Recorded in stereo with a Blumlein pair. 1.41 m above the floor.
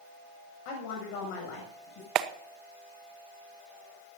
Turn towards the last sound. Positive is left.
turn(degrees=-35)